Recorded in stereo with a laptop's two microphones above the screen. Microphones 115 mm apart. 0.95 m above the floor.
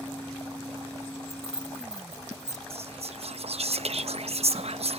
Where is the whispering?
65° right (ahead or behind).